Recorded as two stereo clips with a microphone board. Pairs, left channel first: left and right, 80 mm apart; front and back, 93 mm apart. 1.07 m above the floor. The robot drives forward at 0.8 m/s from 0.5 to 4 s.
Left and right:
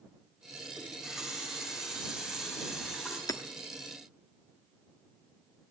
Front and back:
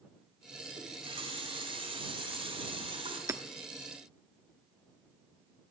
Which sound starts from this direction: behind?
A running tap, at 0.8 s.